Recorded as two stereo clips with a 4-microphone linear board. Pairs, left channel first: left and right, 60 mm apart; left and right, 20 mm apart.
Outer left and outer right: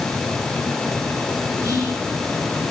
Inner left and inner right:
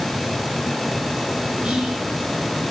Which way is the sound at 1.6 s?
70° right (ahead or behind).